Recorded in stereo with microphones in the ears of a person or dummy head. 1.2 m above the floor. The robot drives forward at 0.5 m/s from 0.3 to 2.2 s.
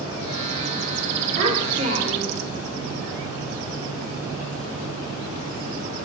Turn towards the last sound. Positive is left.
turn(degrees=-50)  # may be behind; listen again after turning